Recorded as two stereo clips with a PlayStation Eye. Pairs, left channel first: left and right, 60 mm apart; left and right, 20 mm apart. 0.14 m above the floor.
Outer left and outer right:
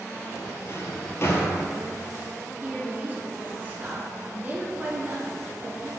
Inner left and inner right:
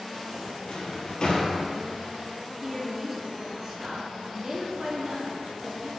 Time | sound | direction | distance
0.7 | a drawer | 45° left (ahead or behind) | 1.1 m
2.6 | a woman speaking | 30° right (ahead or behind) | 1.7 m